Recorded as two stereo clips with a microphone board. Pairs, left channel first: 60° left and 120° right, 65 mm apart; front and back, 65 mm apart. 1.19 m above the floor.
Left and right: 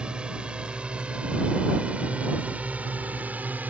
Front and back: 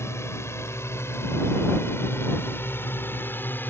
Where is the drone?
45° right; by 3.7 s 55° right.